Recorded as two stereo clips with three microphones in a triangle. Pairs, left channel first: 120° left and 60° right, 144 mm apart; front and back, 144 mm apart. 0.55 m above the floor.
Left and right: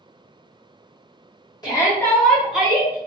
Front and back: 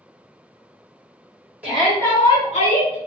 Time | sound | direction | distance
1.6 | a shout | 115° left | 1.1 m